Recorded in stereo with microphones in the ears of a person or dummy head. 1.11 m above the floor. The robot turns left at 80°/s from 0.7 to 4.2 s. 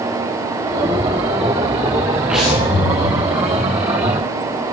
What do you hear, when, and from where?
2.3 s breathing: 170° right, 8 m; by 3.1 s 125° left, 8 m